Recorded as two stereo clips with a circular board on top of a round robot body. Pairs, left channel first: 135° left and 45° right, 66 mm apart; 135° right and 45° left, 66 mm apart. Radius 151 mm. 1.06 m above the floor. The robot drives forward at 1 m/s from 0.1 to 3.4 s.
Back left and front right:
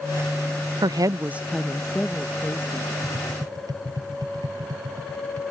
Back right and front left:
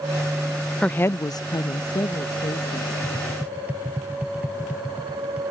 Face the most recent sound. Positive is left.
turn(degrees=-25)